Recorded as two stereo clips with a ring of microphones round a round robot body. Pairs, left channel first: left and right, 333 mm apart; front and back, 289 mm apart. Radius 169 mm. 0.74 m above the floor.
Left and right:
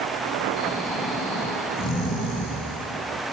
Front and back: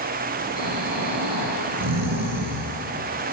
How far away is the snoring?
About 4.5 m.